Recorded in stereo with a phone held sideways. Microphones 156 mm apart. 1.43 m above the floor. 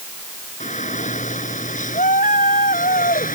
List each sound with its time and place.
0.6 s a shout: 50° left (ahead or behind); by 3.4 s 60° left (ahead or behind)